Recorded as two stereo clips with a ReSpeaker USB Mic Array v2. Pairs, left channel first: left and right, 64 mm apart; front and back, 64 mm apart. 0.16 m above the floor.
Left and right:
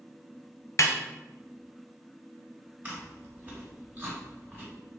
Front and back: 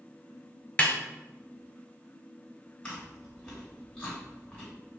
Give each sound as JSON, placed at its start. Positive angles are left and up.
{"t": 0.8, "sound": "a snare drum", "azimuth_deg": 70, "distance_m": 0.5}
{"t": 2.8, "sound": "chewing", "azimuth_deg": -60, "distance_m": 1.9}